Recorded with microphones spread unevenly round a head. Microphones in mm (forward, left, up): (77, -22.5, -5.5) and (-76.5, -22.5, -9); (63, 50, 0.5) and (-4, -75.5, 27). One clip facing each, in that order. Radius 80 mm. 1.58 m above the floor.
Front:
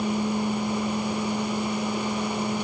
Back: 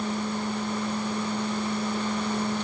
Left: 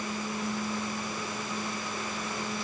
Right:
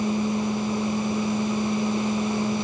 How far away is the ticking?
No ticking in this recording.